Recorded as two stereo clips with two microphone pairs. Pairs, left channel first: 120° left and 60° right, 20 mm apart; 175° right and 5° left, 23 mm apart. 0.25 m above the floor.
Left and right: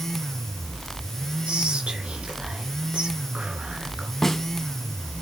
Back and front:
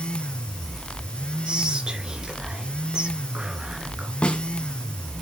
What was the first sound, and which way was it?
Whispering, 50° right.